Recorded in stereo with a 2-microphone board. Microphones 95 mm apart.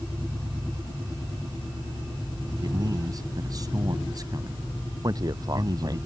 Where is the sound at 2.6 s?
40° right (ahead or behind).